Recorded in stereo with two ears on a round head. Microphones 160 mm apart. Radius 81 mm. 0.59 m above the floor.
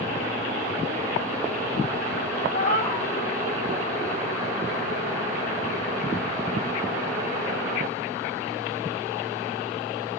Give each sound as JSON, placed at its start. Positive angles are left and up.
{"t": 2.5, "sound": "a cat meowing", "side_deg": 35, "distance_m": 1.3}